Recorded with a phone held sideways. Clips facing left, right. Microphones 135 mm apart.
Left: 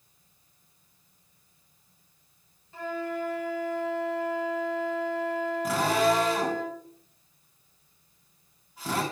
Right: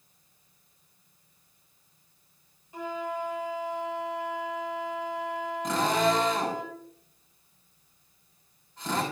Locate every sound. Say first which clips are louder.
2.7 s a flute: left 1 dB; 15° right (ahead or behind), 3.5 m
5.6 s a drill: even; 5° left (ahead or behind), 6.5 m